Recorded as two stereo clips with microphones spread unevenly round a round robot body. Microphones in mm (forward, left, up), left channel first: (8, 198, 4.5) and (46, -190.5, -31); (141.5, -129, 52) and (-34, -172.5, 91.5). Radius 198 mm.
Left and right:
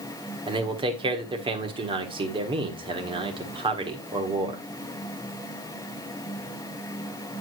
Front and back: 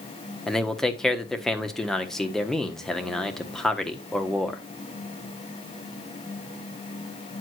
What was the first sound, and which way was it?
A man speaking, 40° right.